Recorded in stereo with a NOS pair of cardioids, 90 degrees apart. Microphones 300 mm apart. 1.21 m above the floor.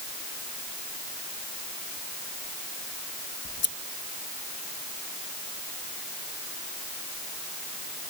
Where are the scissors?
40° left.